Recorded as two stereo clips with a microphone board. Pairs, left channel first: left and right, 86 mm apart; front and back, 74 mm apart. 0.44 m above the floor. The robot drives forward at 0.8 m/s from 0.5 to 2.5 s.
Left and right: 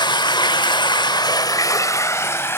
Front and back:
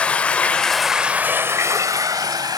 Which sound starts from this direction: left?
Running water, at 0.0 s.